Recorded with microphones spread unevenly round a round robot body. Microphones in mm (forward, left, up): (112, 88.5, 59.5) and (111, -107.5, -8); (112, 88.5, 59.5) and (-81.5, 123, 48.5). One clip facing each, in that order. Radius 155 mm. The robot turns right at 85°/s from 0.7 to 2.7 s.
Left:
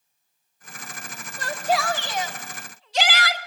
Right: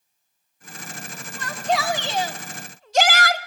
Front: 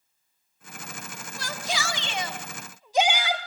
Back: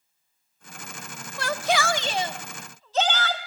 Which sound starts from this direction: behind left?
A shout, at 1.4 s.